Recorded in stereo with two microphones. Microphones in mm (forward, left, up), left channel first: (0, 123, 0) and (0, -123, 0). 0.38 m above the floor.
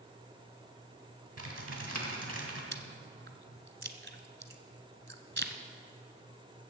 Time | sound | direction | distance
1.4 | typing on a keyboard | 70° right (ahead or behind) | 2 m
2.7 | chewing | 45° right (ahead or behind) | 1.0 m